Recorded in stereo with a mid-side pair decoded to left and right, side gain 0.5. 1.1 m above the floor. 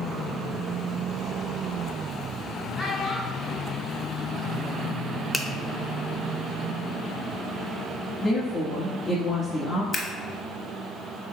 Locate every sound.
2.8 s a child speaking: 45° left, 1.8 m
5.3 s a finger snap: 25° left, 0.6 m
8.2 s a woman speaking: 35° left, 1.5 m
9.9 s scissors: 40° left, 1.0 m